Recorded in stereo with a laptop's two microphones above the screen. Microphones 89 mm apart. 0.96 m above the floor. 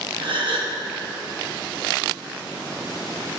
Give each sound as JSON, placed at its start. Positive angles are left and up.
{"t": 0.2, "sound": "a gasp", "side_deg": -65, "distance_m": 0.9}